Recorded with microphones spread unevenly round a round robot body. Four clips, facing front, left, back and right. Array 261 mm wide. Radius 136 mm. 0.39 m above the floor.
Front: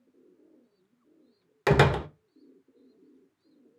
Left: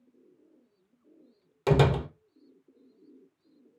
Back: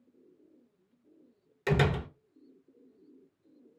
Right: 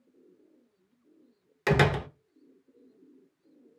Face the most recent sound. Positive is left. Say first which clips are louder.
# left 1 dB, front 6 dB
turn(degrees=15)